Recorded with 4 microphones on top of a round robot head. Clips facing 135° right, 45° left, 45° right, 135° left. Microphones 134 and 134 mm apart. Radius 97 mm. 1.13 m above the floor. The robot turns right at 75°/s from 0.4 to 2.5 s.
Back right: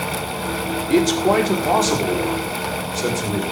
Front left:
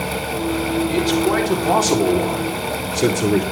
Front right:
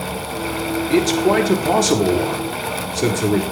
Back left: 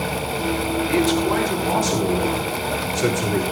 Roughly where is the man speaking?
Right.